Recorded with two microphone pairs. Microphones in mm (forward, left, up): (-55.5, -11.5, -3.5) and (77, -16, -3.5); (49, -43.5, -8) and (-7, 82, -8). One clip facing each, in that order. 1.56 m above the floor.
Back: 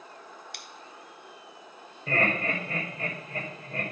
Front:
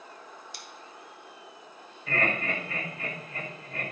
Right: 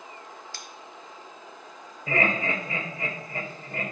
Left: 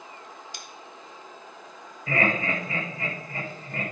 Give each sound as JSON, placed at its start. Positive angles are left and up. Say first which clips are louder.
{"t": 0.5, "sound": "scissors", "louder": "even, even", "azimuth_deg": -175, "distance_m": 1.2}
{"t": 2.1, "sound": "laughter", "louder": "back 2 dB, even", "azimuth_deg": -130, "distance_m": 5.0}